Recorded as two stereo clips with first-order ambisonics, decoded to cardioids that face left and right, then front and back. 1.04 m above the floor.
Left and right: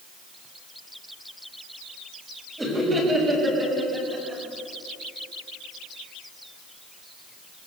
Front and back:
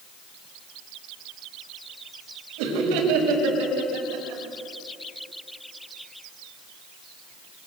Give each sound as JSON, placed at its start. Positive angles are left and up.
{"t": 2.6, "sound": "laughter", "azimuth_deg": -170, "distance_m": 6.0}